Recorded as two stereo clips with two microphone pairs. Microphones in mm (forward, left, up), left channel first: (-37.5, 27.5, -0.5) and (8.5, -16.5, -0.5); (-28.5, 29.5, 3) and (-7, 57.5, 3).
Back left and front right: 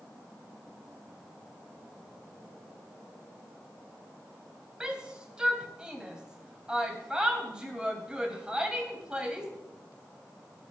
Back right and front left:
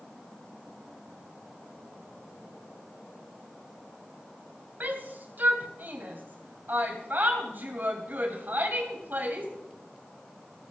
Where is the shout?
30° left, 2.5 m.